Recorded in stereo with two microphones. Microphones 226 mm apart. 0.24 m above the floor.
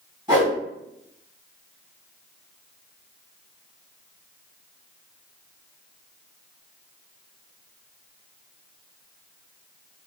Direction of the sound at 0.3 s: 20° right (ahead or behind).